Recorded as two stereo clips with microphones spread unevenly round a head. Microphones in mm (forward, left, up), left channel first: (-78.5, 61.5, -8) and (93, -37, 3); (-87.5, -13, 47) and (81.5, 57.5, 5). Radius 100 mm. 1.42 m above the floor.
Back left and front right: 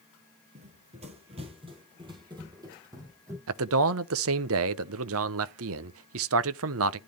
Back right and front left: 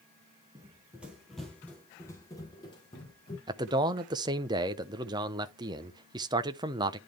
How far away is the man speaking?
About 0.6 m.